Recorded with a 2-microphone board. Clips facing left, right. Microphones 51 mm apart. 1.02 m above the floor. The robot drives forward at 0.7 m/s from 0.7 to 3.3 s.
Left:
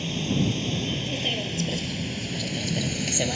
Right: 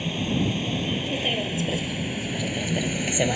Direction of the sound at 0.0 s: 15° right (ahead or behind).